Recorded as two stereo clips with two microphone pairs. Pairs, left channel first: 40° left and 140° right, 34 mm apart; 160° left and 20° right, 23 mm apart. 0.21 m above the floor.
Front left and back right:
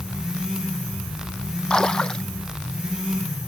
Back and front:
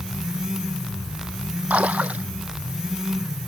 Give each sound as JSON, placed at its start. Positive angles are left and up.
{"t": 1.7, "sound": "a splash", "azimuth_deg": -30}